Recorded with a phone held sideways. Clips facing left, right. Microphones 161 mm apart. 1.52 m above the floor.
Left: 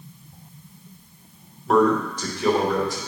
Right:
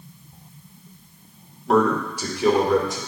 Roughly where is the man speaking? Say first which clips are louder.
Left 1 dB; centre.